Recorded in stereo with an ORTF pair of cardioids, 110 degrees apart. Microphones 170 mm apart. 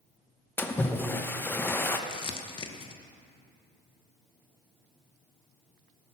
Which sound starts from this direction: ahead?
A splash, at 0.6 s.